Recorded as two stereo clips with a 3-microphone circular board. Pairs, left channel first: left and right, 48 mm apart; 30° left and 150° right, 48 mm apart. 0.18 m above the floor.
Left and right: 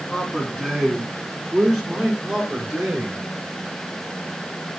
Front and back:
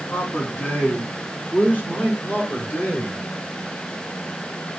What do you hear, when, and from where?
0.1 s a man speaking: 30° left, 2 m; by 3.2 s 20° right, 3.5 m